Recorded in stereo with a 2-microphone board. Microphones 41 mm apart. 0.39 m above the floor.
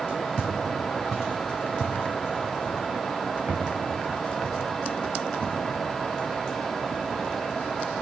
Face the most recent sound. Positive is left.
turn(degrees=-75)  # may be behind; listen again after turning